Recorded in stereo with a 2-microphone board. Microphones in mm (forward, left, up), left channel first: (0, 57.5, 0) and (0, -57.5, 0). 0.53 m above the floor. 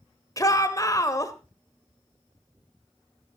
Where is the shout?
30° left (ahead or behind), 1.8 m.